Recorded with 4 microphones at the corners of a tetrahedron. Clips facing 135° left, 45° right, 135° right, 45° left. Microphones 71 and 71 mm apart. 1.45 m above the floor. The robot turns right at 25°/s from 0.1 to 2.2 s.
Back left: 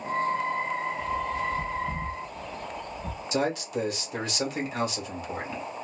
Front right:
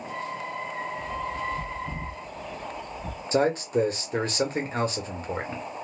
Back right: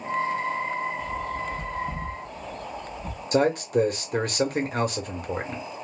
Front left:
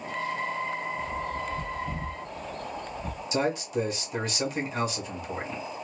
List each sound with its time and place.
1.0 s a bird: straight ahead, 1.7 m; by 3.2 s 30° left, 1.7 m
3.3 s a man speaking: 100° right, 1.3 m